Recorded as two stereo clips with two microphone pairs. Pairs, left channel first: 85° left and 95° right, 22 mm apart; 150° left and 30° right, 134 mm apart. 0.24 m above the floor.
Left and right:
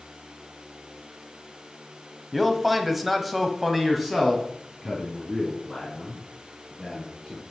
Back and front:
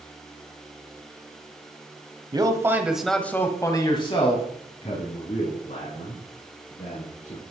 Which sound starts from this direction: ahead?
A man speaking, at 2.3 s.